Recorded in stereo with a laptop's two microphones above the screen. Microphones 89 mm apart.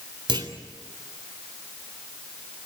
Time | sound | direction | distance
0.3 | a clunk | 70° right (ahead or behind) | 3 m